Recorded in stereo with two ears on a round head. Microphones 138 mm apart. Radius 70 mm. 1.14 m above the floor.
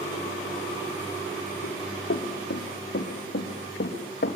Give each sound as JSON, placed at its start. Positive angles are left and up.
{"t": 1.6, "sound": "running footsteps", "side_deg": 75, "distance_m": 4.0}